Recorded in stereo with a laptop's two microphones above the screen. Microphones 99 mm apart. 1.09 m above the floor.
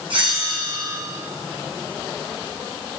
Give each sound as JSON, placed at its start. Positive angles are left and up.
{"t": 0.1, "sound": "a bell", "side_deg": -55, "distance_m": 0.9}